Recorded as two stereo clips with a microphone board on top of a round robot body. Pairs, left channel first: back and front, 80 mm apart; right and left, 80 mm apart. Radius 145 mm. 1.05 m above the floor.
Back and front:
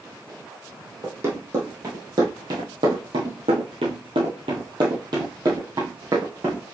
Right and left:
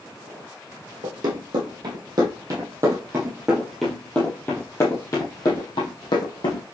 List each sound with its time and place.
1.0 s running footsteps: 60° left, 2.5 m; by 6.6 s 60° right, 2.5 m